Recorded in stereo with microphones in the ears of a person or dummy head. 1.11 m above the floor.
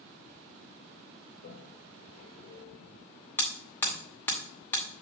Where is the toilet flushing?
45° left (ahead or behind), 2 m.